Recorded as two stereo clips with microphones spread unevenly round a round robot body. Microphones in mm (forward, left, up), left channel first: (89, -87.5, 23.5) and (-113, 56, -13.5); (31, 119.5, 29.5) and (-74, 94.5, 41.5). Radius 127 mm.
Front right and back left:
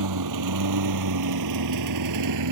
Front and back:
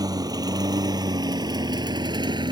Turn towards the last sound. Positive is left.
turn(degrees=150)